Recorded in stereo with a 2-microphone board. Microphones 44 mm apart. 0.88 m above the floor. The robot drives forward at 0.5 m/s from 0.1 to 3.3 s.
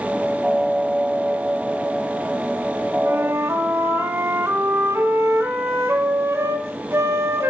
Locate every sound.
3.0 s a flute: 70° right (ahead or behind), 1.3 m